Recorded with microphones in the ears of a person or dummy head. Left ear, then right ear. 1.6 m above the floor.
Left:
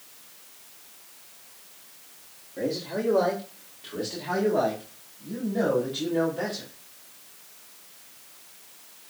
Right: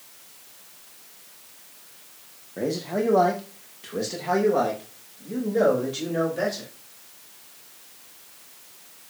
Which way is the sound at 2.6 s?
75° right (ahead or behind).